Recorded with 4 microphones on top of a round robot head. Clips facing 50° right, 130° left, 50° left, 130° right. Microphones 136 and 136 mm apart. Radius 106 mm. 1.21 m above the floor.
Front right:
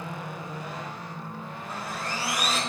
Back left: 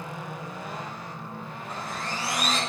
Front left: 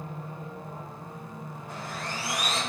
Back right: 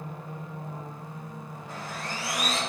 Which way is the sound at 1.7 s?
130° right.